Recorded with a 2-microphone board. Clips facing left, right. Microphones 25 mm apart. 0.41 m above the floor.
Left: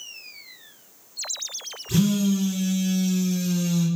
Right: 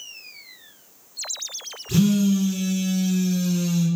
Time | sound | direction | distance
1.9 | a phone buzzing | 30° right (ahead or behind) | 1.8 m